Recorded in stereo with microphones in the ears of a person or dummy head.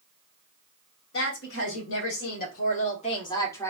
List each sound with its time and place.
1.1 s a woman speaking: 85° left, 1.6 m; by 3.7 s 20° left (ahead or behind), 1.2 m